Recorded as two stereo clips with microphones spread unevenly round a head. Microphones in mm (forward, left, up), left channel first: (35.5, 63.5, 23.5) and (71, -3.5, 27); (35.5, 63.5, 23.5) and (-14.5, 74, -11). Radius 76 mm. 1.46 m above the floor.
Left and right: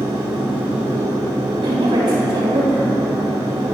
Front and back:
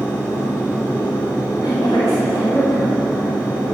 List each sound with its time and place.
0.0 s a machine running: 85° right, 1.9 m
1.6 s a woman speaking: 75° right, 3.5 m